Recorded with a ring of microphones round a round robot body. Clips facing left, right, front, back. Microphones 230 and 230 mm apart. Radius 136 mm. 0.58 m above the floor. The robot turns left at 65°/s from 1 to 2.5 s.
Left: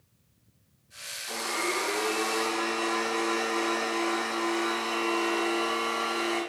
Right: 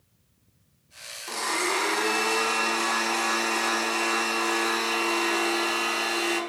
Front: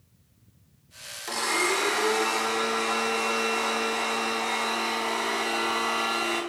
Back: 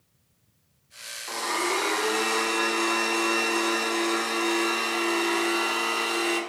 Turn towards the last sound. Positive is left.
turn(degrees=-120)